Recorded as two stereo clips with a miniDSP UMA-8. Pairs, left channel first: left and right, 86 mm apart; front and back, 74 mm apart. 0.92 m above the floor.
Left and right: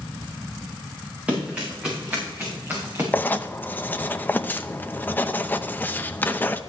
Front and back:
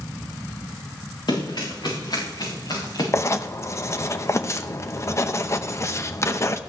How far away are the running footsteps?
About 6.5 m.